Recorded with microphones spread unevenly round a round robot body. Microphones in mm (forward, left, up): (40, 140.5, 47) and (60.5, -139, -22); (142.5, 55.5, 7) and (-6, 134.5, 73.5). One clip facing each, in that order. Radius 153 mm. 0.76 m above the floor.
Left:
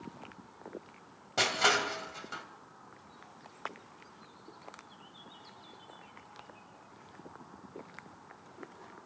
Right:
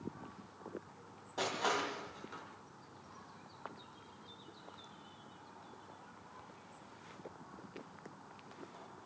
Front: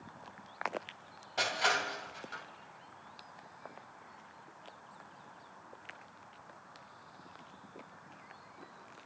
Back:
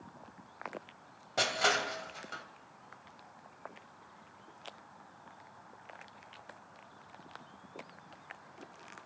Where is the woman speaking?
I don't hear a woman speaking.